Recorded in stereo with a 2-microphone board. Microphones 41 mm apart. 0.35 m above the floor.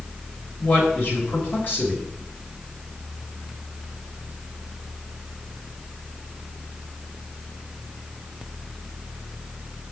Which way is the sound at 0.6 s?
50° left (ahead or behind).